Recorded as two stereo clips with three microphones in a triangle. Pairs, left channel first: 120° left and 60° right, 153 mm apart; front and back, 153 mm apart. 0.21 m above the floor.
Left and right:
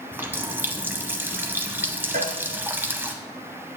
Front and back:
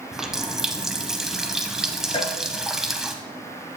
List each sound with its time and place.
0.1 s a running tap: 100° right, 0.6 m
2.1 s a cowbell: 55° right, 0.8 m